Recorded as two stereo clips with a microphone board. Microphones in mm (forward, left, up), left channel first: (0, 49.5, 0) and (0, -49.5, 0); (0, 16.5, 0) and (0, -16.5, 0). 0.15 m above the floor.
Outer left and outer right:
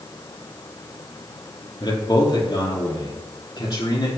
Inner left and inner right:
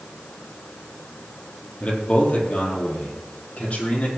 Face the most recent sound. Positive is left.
turn(degrees=45)  # may be behind; listen again after turning